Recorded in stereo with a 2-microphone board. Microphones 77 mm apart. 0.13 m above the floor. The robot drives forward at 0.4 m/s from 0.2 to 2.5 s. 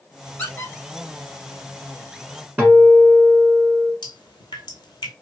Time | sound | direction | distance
0.4 | a squeak | 25° left (ahead or behind) | 0.8 m
2.6 | a guitar | 20° right (ahead or behind) | 0.9 m
4.0 | dripping | 70° left (ahead or behind) | 0.7 m